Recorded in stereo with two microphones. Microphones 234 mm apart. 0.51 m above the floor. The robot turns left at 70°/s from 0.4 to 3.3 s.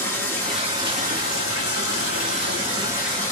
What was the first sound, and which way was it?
Running water, 10° left.